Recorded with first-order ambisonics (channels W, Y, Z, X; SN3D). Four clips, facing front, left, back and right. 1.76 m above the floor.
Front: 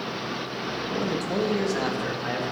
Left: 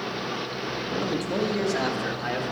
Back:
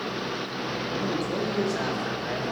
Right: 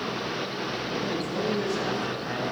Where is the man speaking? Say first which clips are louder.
Left 4 dB, front 2 dB; 30° left, 1.7 m; by 2.5 s 55° left, 2.5 m.